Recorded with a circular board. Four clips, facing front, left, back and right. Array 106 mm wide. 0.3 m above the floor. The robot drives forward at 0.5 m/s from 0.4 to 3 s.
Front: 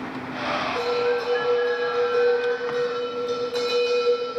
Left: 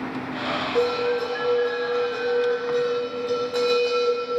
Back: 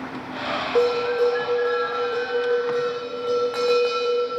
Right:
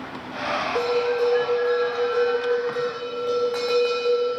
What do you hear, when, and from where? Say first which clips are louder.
0.8 s a bell: even, back 5 dB; 175° right, 5 m